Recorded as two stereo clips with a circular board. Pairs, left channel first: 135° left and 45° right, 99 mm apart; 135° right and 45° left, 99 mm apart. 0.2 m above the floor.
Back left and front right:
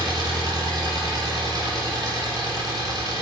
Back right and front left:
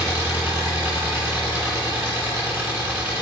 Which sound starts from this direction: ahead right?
An engine running, at 0.0 s.